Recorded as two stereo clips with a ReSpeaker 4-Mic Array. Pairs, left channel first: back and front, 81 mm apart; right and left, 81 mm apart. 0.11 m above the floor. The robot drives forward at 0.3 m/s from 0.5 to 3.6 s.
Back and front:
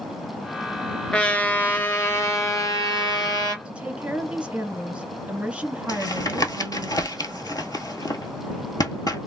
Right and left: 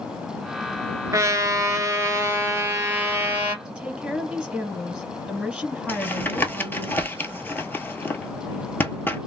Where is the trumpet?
105° left, 0.7 m; by 3.5 s 150° left, 1.1 m.